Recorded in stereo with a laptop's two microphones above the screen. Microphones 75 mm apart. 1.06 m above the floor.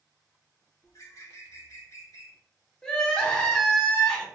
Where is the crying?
10° left (ahead or behind), 0.7 m.